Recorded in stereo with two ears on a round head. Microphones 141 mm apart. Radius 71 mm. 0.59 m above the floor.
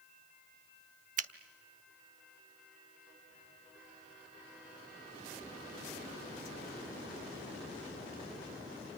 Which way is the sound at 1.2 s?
50° right (ahead or behind).